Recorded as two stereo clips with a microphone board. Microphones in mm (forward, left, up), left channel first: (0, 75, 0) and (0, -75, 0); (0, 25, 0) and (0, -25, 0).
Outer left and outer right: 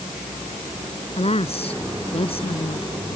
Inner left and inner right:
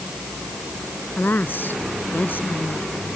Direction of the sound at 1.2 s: 45° left (ahead or behind).